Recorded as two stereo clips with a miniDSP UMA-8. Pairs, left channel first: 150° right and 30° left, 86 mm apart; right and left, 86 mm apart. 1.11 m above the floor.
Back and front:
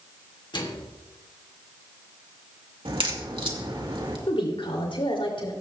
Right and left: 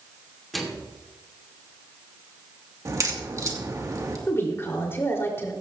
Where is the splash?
No splash in this recording.